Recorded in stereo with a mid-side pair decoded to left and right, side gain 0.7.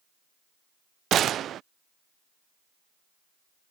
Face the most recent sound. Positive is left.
turn(degrees=-40)